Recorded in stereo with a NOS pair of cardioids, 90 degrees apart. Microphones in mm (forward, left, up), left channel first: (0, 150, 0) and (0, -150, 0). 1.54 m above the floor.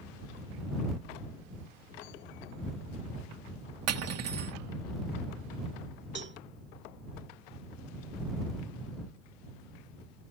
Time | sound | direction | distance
3.9 | cutlery clinking | 60° right | ?
6.2 | a cowbell | 40° right | ?